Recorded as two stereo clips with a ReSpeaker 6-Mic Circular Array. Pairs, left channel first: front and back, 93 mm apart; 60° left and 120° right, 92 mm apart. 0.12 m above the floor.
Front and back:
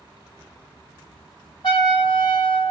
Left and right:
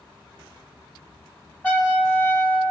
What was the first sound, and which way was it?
A trumpet, 15° right.